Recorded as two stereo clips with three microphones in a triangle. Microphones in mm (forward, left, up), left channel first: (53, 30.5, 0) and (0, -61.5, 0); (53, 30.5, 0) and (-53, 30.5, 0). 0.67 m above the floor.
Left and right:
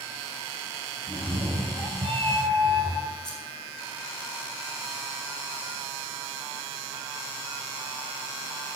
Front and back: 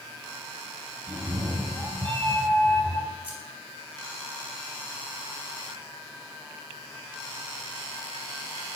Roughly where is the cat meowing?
Behind right.